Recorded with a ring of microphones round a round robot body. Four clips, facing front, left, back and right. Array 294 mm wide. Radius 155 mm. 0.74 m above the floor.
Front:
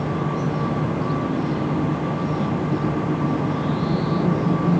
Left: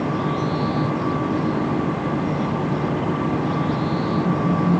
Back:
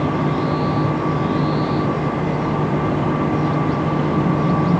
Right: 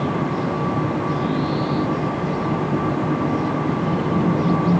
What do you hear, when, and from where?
Only background noise.